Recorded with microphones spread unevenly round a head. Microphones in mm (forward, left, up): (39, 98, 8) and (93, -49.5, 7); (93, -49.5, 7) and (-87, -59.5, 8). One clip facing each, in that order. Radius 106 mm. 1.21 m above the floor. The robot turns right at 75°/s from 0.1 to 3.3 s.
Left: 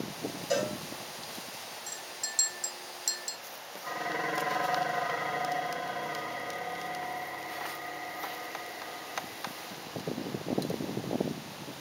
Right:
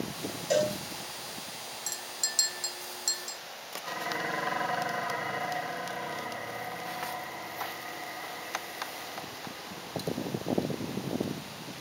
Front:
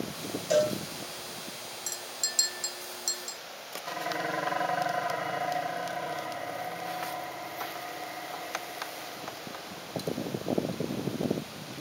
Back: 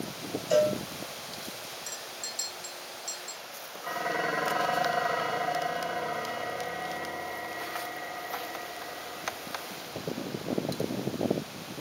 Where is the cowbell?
10° right, 3 m; by 0.8 s 10° left, 3 m.